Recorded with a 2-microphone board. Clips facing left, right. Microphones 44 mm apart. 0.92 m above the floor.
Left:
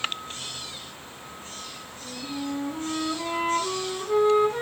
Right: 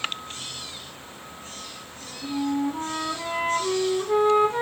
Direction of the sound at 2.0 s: 15° right (ahead or behind).